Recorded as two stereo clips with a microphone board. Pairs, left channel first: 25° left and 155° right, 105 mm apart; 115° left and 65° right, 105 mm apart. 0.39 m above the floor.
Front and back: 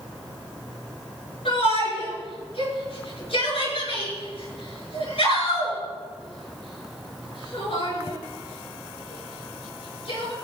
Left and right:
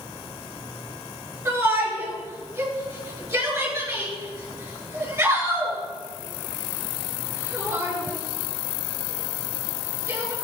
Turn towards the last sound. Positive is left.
turn(degrees=0)